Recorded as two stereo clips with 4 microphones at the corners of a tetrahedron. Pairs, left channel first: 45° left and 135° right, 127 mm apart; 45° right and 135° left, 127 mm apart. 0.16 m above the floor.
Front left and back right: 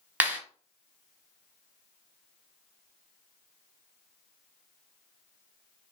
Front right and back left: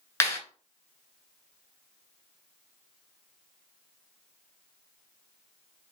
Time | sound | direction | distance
0.2 | a clap | 75° right | 0.9 m